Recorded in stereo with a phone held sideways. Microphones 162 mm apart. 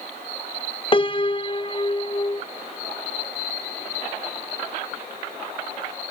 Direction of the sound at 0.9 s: 35° left (ahead or behind).